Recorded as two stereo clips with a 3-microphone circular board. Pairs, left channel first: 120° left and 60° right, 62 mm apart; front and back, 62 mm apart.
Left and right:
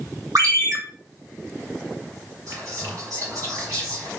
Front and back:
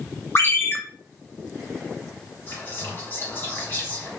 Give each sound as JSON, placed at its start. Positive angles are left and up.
{"t": 0.3, "sound": "a ringtone", "azimuth_deg": -45, "distance_m": 1.7}
{"t": 2.5, "sound": "whispering", "azimuth_deg": -50, "distance_m": 1.9}